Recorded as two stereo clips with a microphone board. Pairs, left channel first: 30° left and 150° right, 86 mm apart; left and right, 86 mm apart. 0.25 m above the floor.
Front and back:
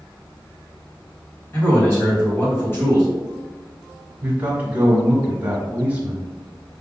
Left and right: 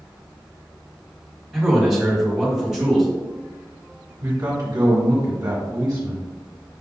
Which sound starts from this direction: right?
A man speaking, at 4.2 s.